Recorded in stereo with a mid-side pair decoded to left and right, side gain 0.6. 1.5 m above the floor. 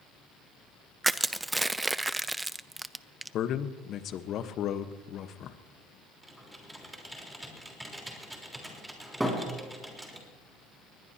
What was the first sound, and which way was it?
Crushing, 10° right.